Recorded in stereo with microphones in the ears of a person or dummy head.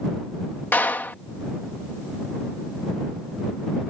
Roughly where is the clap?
Centre.